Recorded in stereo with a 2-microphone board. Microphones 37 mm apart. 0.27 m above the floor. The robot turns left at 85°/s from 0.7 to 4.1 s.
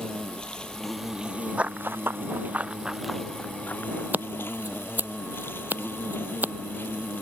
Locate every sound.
0.0 s an insect: 25° left; by 7.2 s 100° left
1.6 s running footsteps: 30° right (ahead or behind); by 4.0 s 80° left
4.1 s scissors: 60° right (ahead or behind)